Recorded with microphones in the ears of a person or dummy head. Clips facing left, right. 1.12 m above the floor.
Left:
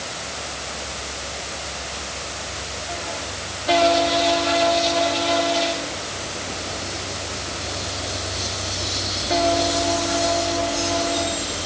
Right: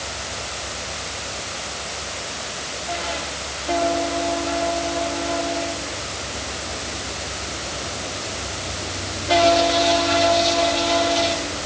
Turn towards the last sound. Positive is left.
No sound to turn to.